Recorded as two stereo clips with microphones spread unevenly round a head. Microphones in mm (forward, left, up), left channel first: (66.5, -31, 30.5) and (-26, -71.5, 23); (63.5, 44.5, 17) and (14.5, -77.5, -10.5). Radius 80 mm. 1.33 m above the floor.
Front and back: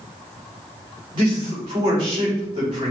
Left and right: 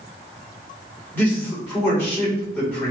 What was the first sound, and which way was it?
A man speaking, 145° left.